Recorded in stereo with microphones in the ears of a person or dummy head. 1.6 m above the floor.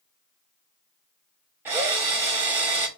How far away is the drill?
About 1.1 m.